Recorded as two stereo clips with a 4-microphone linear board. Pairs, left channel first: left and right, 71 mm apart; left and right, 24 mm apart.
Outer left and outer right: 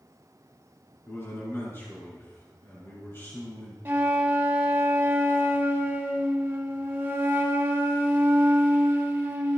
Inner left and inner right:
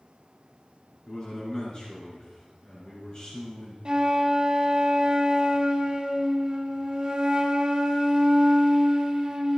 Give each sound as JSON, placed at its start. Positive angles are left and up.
{"t": 1.1, "sound": "a man speaking", "side_deg": 35, "distance_m": 5.0}
{"t": 3.9, "sound": "a flute", "side_deg": -30, "distance_m": 2.0}